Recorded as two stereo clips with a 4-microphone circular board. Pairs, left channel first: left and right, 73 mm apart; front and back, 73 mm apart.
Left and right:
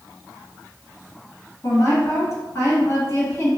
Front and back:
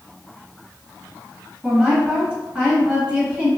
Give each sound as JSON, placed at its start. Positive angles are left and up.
{"t": 1.6, "sound": "a woman speaking", "azimuth_deg": 105, "distance_m": 2.0}